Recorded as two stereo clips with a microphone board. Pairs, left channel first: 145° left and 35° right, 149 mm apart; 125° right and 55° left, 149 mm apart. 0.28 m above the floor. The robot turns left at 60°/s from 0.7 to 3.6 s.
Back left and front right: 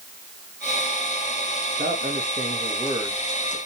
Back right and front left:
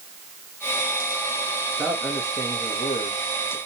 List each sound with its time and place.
1.8 s a man speaking: 30° right, 3 m; by 3.6 s 135° right, 3 m